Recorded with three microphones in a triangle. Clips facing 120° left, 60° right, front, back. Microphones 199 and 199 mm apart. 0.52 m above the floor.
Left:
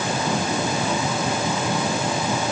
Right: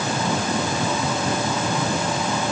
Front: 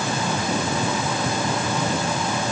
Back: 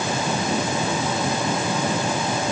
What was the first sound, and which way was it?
Only background noise.